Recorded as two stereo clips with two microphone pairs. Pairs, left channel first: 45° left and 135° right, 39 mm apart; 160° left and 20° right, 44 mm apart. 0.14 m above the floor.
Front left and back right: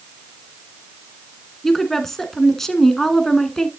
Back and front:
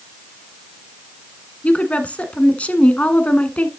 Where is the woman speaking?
120° left, 1.4 m.